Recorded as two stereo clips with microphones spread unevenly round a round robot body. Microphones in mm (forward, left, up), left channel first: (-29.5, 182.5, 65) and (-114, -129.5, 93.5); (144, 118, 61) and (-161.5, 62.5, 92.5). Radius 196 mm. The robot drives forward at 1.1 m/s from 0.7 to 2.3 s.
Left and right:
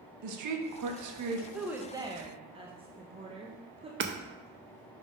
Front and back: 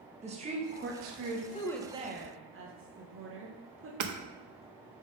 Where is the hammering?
160° right, 0.8 m.